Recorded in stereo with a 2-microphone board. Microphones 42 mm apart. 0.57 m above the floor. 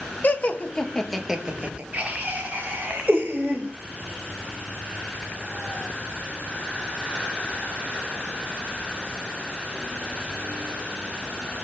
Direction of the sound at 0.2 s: 45° left (ahead or behind).